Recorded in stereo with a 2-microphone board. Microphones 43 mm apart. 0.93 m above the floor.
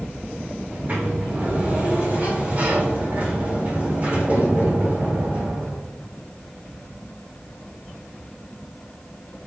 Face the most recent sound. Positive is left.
turn(degrees=-35)  # may be behind; listen again after turning